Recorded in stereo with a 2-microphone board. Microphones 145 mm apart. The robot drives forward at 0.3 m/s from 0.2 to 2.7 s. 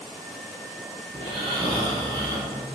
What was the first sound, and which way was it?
Snoring, 40° right (ahead or behind).